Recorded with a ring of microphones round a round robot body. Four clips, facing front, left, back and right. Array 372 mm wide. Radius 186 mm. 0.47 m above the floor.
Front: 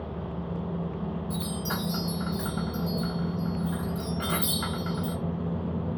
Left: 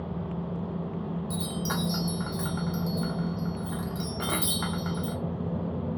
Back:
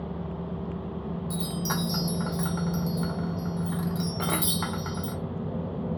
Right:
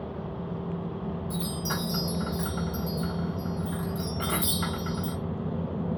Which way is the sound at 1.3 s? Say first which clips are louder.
Left 1 dB, back 1 dB; 150° left.